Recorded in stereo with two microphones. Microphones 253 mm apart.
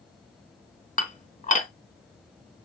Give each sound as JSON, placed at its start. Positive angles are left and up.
{"t": 1.0, "sound": "dishes clattering", "side_deg": 30, "distance_m": 0.8}